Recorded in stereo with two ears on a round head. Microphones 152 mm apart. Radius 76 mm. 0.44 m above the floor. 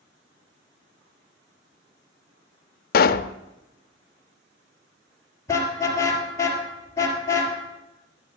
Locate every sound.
2.9 s a pop: 55° left (ahead or behind), 0.5 m
5.5 s a car horn: 20° left (ahead or behind), 3.5 m